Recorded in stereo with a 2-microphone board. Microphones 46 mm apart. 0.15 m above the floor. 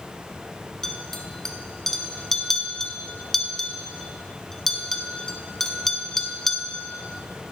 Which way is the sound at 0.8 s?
5° left (ahead or behind).